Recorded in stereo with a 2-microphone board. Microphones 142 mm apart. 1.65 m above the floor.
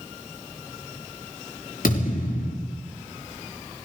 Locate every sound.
1.8 s a thud: 75° left (ahead or behind), 7 m